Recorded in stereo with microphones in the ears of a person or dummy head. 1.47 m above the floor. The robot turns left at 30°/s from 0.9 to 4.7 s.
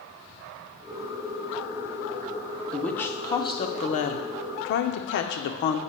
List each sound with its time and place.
2.7 s a woman speaking: 175° left, 0.7 m; by 5.8 s 115° left, 0.7 m